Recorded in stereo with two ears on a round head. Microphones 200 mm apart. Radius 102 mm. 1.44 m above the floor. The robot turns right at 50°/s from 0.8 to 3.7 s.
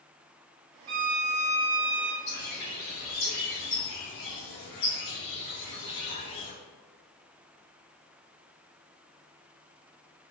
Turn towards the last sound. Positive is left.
turn(degrees=110)